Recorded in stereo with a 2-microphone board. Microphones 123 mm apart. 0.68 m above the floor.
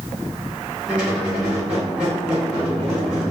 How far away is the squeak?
About 1.2 m.